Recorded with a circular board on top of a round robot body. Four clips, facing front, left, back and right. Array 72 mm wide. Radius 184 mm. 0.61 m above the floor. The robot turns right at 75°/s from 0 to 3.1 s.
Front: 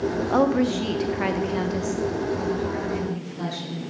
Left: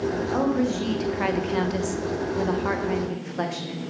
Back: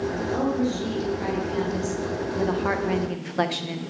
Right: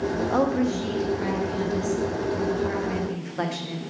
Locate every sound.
0.3 s a woman speaking: 25° right, 1.7 m; by 3.8 s 175° right, 1.7 m